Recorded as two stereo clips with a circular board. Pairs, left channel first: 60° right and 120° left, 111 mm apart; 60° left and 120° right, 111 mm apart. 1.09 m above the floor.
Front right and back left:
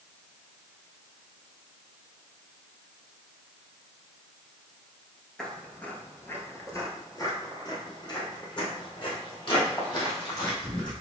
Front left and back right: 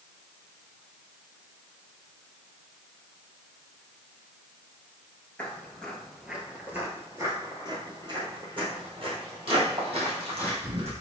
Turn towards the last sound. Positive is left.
turn(degrees=-100)